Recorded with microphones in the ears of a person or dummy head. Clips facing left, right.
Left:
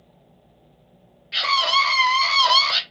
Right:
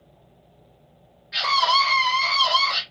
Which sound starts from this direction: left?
A scream, at 1.3 s.